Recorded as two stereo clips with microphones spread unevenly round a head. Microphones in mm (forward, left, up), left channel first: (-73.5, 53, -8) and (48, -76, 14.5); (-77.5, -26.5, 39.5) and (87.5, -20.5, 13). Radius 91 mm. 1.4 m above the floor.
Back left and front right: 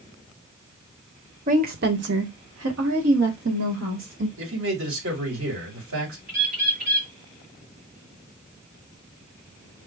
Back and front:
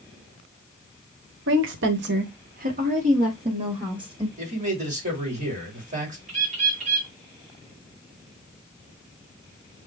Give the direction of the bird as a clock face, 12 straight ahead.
1 o'clock.